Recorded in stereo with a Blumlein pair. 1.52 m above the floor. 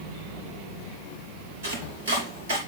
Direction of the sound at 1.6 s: 60° right.